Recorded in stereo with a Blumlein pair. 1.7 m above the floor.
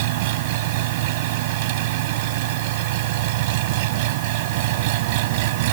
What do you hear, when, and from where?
0.0 s an engine running: 50° right